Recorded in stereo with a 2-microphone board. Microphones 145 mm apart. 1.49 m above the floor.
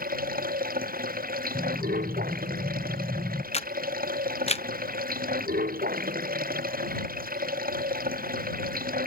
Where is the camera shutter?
45° left (ahead or behind).